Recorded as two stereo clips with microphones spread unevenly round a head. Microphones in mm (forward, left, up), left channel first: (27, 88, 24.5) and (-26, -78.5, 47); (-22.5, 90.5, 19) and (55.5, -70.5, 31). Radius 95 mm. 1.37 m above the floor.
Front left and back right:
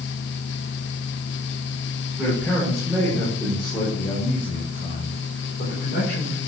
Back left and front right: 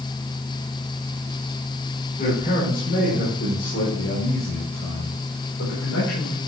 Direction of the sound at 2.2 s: 170° left.